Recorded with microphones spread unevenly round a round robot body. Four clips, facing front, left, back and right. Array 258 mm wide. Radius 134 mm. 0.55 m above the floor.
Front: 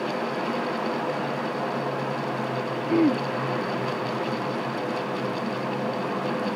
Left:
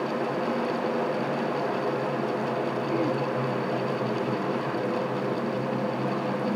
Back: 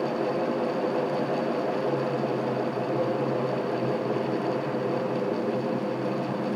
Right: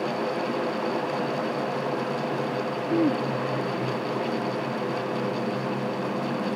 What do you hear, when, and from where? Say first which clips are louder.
2.9 s throat clearing: right 5 dB, front 8 dB; 25° right